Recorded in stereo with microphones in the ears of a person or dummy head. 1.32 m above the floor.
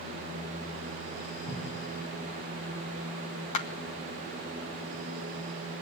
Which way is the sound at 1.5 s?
70° left (ahead or behind).